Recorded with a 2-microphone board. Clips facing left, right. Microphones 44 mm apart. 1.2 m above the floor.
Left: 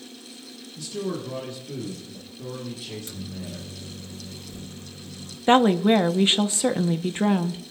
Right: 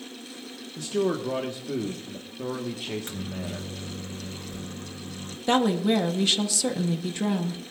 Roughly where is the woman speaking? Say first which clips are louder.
Left 5 dB; left.